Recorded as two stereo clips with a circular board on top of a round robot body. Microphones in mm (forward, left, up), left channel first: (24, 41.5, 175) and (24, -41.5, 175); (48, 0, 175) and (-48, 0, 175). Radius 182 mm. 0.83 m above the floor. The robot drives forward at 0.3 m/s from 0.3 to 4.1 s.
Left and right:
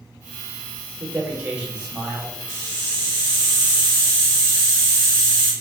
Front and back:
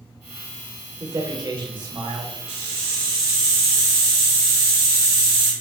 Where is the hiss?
160° left, 1.4 m; by 5.5 s 165° left, 1.8 m.